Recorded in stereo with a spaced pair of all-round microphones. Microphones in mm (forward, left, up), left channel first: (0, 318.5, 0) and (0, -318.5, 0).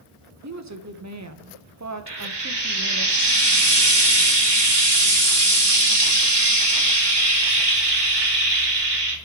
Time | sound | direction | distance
0.4 | a woman speaking | 30° right (ahead or behind) | 0.6 m
2.1 | frying | 40° right (ahead or behind) | 1.2 m